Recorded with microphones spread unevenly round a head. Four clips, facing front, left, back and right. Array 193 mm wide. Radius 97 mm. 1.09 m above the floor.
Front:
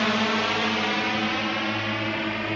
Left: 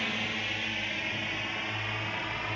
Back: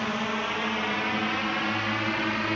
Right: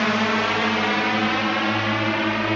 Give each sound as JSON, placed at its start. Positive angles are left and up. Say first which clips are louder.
{"t": 0.0, "sound": "a drone", "louder": "right 15 dB, front 5 dB", "azimuth_deg": -65}